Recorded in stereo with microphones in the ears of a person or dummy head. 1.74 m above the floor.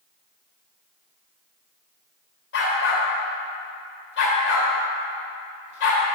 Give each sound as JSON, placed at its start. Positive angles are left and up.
{"t": 2.5, "sound": "a dog barking", "side_deg": 65, "distance_m": 2.5}